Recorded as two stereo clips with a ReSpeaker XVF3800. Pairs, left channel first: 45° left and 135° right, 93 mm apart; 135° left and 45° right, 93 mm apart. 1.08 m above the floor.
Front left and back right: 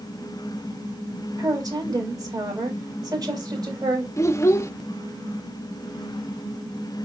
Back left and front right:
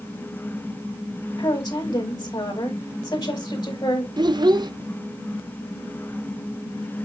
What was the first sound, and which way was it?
A woman speaking, straight behind.